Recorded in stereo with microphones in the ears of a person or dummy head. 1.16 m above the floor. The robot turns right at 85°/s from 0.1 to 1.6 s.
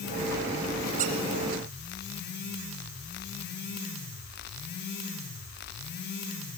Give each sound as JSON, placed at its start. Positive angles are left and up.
{"t": 1.0, "sound": "a squeak", "side_deg": -35, "distance_m": 4.0}